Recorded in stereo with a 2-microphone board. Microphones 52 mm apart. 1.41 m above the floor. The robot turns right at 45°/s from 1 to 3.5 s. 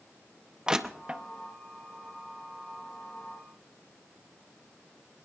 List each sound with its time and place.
0.7 s crushing: 15° right (ahead or behind), 0.7 m; by 1.2 s 25° right (ahead or behind), 0.7 m